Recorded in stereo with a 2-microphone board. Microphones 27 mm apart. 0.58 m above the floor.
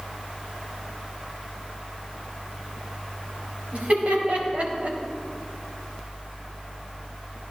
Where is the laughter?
60° right (ahead or behind), 4 m; by 5.0 s 65° right (ahead or behind), 3.5 m.